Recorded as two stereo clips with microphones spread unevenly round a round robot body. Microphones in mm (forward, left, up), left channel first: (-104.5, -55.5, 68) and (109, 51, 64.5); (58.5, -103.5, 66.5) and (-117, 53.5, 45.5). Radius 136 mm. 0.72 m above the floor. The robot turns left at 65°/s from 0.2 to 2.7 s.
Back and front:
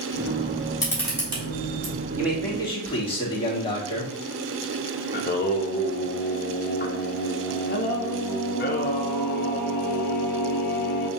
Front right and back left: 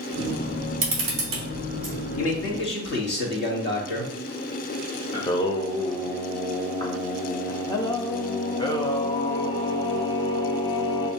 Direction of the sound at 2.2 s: 50° right.